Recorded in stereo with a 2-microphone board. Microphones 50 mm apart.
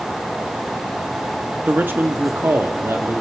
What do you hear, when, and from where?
1.7 s a man speaking: 40° right (ahead or behind), 1.0 m; by 3.2 s 55° right (ahead or behind), 1.7 m